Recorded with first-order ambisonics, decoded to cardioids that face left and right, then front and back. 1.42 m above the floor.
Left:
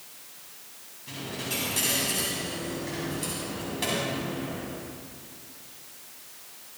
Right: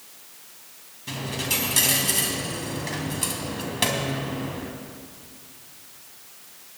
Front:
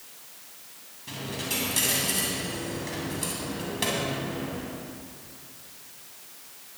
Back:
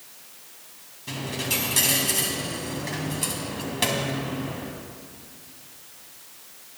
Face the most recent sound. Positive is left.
turn(degrees=-110)